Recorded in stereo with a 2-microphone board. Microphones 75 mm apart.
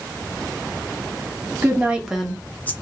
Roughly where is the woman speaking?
Right.